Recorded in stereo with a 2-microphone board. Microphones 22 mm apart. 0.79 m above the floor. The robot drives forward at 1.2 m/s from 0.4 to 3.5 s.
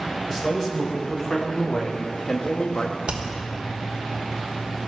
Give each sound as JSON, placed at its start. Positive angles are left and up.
{"t": 0.3, "sound": "a man speaking", "side_deg": 15, "distance_m": 3.0}
{"t": 3.1, "sound": "hammering", "side_deg": -65, "distance_m": 1.3}